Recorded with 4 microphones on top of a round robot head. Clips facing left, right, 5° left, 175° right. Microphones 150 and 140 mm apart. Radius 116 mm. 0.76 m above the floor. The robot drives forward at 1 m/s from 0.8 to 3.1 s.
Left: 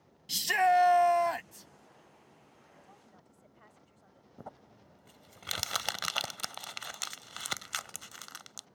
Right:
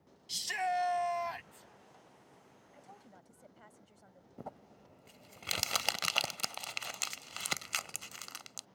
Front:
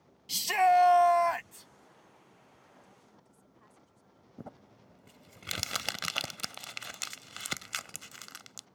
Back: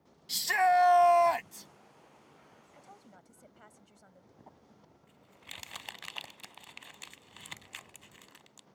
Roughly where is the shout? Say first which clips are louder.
Left 9 dB, front 2 dB; left.